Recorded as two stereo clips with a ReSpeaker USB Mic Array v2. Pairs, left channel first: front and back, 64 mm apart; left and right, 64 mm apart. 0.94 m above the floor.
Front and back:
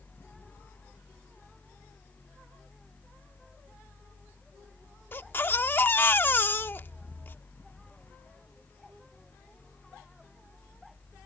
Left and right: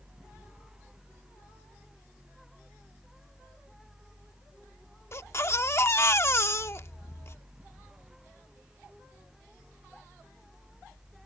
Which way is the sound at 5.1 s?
50° left.